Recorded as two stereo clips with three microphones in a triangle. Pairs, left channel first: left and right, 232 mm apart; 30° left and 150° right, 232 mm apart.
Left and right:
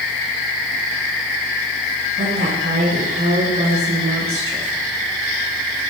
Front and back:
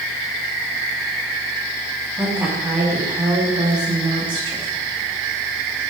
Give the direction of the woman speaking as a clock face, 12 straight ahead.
2 o'clock.